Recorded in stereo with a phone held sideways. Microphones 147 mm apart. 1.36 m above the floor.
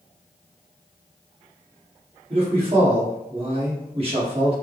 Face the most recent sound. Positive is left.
turn(degrees=-40)  # may be behind; listen again after turning